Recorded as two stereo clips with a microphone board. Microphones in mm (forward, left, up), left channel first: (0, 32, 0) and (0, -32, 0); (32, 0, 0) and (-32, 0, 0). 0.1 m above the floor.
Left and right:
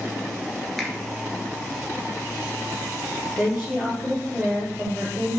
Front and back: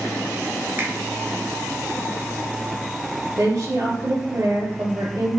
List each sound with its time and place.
0.8 s a finger snap: 175° left, 1.3 m
3.4 s a woman speaking: straight behind, 2.5 m